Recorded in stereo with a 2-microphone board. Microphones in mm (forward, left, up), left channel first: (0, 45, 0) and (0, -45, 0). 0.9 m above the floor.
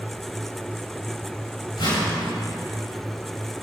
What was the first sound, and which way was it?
A whoosh, 55° left (ahead or behind).